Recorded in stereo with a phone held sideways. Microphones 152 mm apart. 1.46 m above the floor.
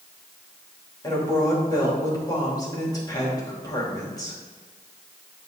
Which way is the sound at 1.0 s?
25° left (ahead or behind).